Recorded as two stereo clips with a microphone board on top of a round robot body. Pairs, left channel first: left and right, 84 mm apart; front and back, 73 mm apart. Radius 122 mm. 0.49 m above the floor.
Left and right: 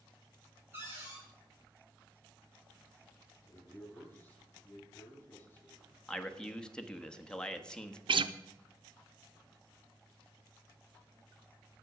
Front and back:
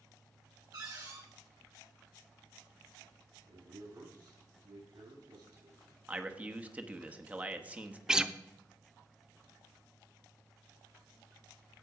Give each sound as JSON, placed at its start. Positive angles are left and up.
{"t": 0.7, "sound": "a cupboard door", "azimuth_deg": -155, "distance_m": 6.0}
{"t": 3.5, "sound": "a man speaking", "azimuth_deg": 160, "distance_m": 6.0}
{"t": 6.1, "sound": "a man speaking", "azimuth_deg": 155, "distance_m": 1.3}
{"t": 8.1, "sound": "a guitar", "azimuth_deg": -100, "distance_m": 0.6}